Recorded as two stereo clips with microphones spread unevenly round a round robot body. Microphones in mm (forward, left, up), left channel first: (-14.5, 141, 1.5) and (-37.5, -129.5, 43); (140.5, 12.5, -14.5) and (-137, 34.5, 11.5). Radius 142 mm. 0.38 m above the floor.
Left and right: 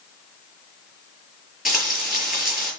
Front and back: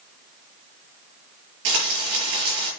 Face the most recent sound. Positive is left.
turn(degrees=175)